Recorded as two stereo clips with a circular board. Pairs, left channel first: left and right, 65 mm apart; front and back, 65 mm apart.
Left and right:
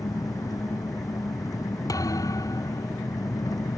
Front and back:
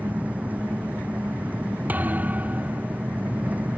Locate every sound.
0.0 s an engine running: 115° left
1.9 s a thud: 115° left